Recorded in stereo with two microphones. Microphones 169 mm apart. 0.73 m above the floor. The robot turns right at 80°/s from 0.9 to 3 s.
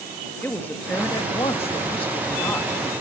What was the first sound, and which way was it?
A woman speaking, 20° left.